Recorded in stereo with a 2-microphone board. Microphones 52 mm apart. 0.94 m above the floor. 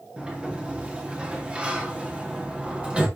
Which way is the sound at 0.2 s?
25° right (ahead or behind).